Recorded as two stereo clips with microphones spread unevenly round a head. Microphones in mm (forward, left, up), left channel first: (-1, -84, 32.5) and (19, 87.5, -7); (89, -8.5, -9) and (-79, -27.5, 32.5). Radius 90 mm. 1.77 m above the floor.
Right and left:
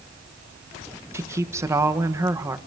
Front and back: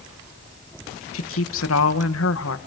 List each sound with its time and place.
1.1 s a woman speaking: 5° left, 1.5 m